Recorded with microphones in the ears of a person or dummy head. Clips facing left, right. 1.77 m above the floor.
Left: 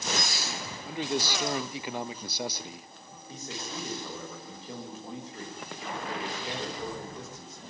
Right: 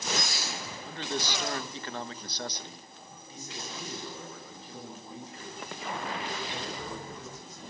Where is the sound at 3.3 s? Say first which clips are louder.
Left 4 dB; 70° left (ahead or behind), 6 m.